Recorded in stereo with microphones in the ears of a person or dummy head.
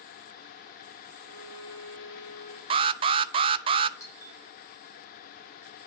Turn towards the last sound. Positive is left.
turn(degrees=20)  # may be behind; listen again after turning